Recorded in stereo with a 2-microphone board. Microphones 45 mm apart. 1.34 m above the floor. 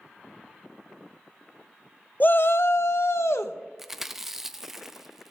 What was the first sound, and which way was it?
A shout, 40° left (ahead or behind).